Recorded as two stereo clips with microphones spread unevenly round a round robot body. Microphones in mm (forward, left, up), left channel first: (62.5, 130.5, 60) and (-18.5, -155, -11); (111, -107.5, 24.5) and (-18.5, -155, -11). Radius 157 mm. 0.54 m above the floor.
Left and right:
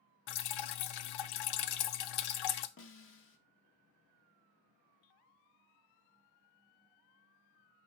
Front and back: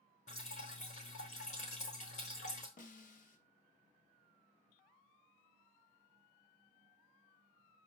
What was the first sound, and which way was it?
Dripping, 85° left.